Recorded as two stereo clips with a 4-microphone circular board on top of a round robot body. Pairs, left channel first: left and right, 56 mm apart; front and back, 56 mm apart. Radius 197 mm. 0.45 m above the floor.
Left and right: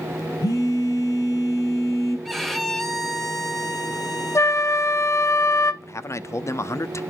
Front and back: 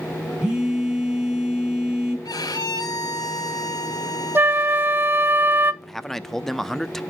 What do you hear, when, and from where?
0.4 s a phone buzzing: 105° left, 7 m
2.2 s a violin: straight ahead, 1.4 m
4.3 s a flute: 120° left, 0.9 m
5.8 s a man speaking: 85° left, 0.9 m